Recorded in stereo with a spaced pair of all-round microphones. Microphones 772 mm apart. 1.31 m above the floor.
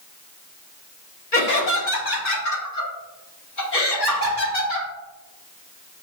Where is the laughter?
80° left, 1.6 m; by 4.9 s 85° left, 4 m.